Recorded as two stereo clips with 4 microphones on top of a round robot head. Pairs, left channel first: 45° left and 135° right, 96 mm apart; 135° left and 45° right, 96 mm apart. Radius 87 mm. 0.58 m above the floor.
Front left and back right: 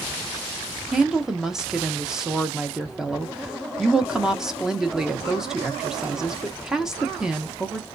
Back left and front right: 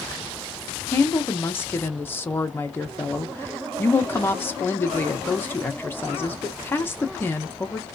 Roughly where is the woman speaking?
Behind left.